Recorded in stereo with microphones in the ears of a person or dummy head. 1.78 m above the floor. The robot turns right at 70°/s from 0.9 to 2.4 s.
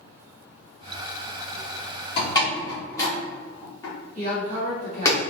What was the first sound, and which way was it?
A door slam, 35° left (ahead or behind).